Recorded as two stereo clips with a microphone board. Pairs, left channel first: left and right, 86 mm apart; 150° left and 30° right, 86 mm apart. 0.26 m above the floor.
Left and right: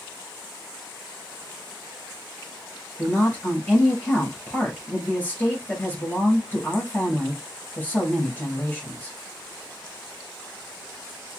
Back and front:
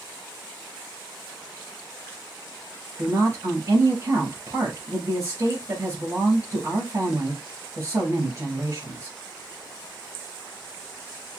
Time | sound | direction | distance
3.0 | a woman speaking | 20° left | 4 m